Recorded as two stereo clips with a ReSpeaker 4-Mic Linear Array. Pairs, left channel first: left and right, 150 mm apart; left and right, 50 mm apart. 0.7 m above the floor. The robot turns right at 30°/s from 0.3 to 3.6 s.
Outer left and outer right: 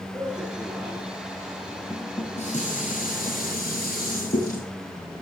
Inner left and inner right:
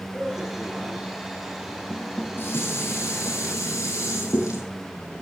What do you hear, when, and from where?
0.1 s a man speaking: 25° right (ahead or behind), 7.5 m; by 1.8 s 20° left (ahead or behind), 7.5 m
1.9 s dishes clattering: 35° left, 9 m; by 4.7 s 85° left, 9 m